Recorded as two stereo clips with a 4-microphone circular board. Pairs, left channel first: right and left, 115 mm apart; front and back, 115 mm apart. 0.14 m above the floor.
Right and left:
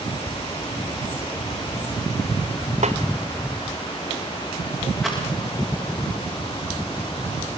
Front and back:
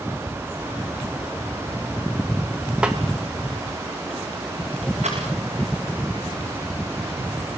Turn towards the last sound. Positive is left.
turn(degrees=180)